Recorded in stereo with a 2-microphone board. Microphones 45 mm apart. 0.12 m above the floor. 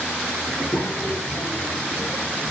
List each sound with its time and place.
0.5 s a child speaking: 65° left (ahead or behind), 2.5 m; by 2.5 s 75° left (ahead or behind), 2.5 m